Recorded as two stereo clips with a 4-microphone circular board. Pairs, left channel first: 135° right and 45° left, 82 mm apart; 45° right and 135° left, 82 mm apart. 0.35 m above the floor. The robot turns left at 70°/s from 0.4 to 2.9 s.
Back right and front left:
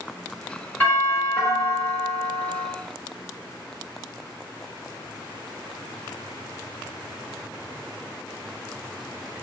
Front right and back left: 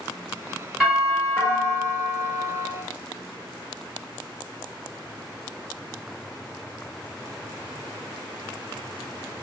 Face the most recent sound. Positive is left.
turn(degrees=65)